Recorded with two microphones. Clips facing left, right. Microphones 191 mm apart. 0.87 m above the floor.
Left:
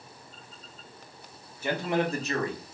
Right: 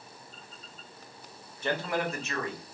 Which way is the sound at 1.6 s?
5° left (ahead or behind).